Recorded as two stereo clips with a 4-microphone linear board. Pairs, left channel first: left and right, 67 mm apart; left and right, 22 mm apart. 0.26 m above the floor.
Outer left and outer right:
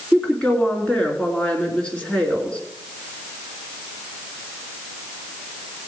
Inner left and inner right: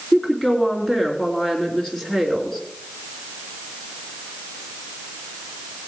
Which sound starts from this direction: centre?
A woman speaking, at 0.1 s.